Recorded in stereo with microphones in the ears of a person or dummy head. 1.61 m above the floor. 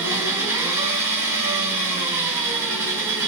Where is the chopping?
I don't hear chopping.